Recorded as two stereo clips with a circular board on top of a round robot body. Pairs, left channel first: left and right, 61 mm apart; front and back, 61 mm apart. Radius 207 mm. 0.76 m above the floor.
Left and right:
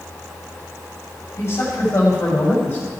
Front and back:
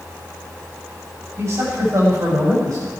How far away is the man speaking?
About 5 m.